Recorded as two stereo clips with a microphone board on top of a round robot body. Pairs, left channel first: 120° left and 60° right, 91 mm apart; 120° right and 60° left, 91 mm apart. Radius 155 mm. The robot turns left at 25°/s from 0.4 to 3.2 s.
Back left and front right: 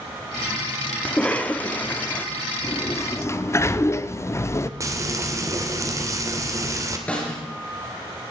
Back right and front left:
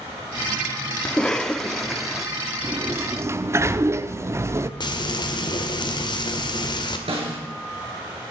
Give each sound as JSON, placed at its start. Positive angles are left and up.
{"t": 1.1, "sound": "a cough", "azimuth_deg": 175, "distance_m": 1.2}
{"t": 2.6, "sound": "a sliding door", "azimuth_deg": 105, "distance_m": 0.8}
{"t": 4.8, "sound": "frying", "azimuth_deg": -105, "distance_m": 1.9}
{"t": 7.1, "sound": "a snare drum", "azimuth_deg": 45, "distance_m": 4.5}